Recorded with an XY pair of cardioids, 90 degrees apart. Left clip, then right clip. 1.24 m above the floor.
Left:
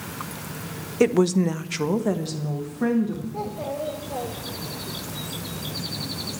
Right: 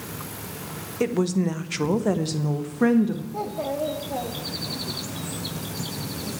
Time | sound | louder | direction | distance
1.0 | a woman speaking | left 5 dB | 45° left | 0.8 m
3.3 | a child speaking | right 2 dB | 45° right | 1.8 m